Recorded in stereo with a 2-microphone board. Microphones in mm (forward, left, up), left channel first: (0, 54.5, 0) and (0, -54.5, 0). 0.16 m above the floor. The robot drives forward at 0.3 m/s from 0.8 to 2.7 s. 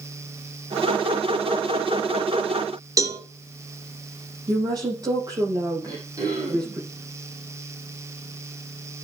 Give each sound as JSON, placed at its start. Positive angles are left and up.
{"t": 3.0, "sound": "a cowbell", "side_deg": -30, "distance_m": 1.6}
{"t": 4.5, "sound": "a woman speaking", "side_deg": -35, "distance_m": 7.0}
{"t": 5.8, "sound": "throat clearing", "side_deg": -35, "distance_m": 5.5}